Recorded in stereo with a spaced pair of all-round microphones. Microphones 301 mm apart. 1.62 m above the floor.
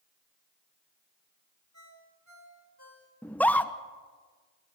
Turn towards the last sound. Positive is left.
turn(degrees=5)  # may be behind; listen again after turning